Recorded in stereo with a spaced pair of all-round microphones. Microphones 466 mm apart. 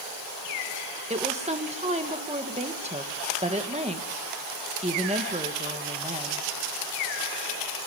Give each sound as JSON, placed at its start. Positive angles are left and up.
{"t": 1.1, "sound": "a woman speaking", "side_deg": -15, "distance_m": 1.5}